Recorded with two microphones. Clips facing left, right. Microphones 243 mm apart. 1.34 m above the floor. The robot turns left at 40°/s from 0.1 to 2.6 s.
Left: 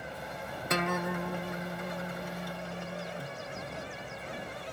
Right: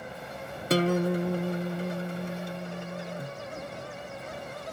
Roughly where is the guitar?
Right.